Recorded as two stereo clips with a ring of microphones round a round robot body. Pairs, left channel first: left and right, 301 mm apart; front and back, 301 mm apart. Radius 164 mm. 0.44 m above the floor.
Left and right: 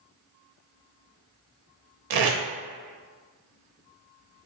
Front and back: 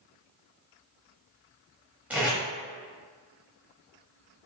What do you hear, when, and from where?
2.1 s tape being pulled: 95° right, 0.8 m